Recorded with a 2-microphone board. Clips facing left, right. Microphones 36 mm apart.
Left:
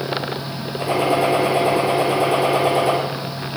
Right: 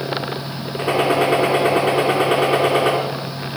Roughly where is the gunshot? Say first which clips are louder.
Right 1 dB; right.